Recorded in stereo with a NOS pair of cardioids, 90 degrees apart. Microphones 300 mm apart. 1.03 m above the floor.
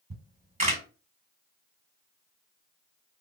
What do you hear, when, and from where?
0.1 s a camera shutter: 25° right, 1.7 m